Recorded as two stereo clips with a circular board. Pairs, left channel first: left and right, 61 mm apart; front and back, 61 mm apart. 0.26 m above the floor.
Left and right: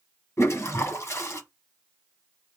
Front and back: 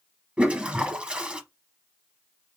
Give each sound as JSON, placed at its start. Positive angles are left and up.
{"t": 0.4, "sound": "a toilet flushing", "azimuth_deg": 110, "distance_m": 0.9}